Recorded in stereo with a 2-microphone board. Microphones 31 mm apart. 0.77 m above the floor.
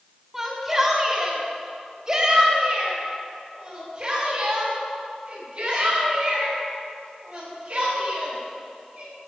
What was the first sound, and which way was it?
A shout, 15° right (ahead or behind).